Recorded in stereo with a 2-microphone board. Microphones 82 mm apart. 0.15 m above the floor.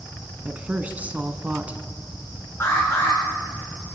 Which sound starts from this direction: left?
An alarm, at 2.6 s.